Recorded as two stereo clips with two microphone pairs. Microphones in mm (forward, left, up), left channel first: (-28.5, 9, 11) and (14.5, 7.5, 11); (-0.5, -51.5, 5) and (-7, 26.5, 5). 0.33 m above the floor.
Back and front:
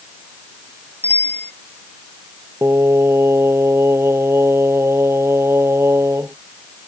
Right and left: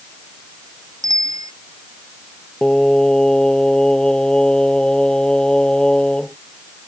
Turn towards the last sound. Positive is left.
turn(degrees=-5)